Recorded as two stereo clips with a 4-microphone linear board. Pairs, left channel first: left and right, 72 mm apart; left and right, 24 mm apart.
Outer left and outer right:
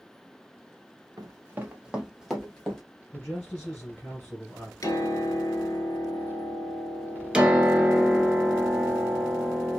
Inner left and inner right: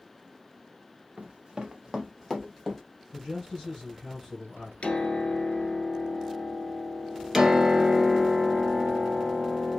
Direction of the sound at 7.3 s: 15° right (ahead or behind).